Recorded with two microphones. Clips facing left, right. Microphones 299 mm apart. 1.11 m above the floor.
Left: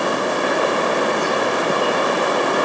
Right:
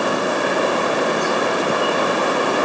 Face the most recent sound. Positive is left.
No sound to turn to.